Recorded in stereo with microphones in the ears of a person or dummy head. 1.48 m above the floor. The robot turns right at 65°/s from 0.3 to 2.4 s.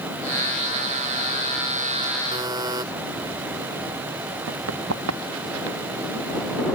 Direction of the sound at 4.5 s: 80° right.